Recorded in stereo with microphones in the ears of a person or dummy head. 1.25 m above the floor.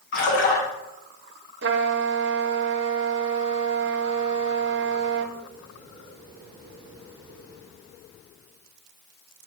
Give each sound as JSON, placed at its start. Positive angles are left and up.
{"t": 0.1, "sound": "a splash", "side_deg": 70, "distance_m": 3.0}
{"t": 1.6, "sound": "a trumpet", "side_deg": -55, "distance_m": 0.7}